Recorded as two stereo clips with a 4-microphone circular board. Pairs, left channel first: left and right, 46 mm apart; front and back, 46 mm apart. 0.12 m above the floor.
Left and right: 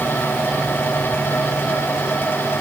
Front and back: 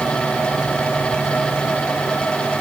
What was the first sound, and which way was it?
Only background noise.